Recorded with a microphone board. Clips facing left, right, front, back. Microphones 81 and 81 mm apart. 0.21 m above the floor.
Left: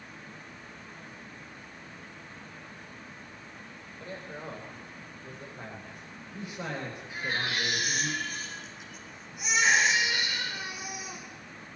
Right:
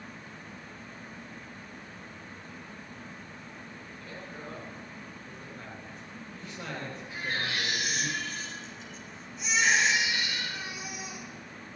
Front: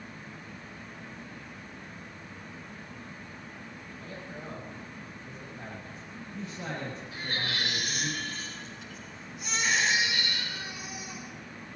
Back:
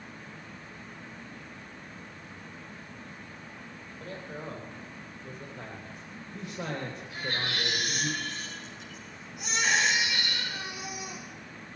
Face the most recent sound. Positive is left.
turn(degrees=170)